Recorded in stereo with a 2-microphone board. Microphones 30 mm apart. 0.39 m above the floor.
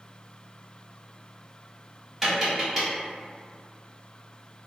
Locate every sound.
2.2 s tapping: 10° right (ahead or behind), 1.4 m